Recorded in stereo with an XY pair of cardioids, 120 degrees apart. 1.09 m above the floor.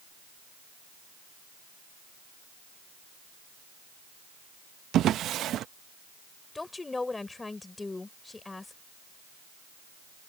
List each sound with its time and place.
4.9 s a drawer: 65° right
6.5 s a woman speaking: 15° left